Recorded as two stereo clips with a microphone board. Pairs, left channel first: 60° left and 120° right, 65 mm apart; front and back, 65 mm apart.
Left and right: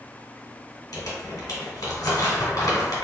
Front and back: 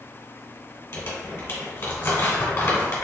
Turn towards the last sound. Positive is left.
turn(degrees=45)